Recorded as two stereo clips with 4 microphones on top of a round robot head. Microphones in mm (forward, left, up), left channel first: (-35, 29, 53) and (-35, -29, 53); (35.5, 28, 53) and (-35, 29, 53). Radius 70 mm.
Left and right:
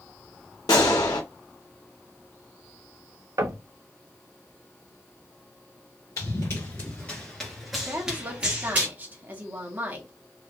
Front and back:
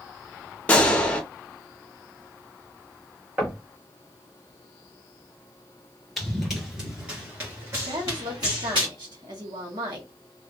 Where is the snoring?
No snoring in this recording.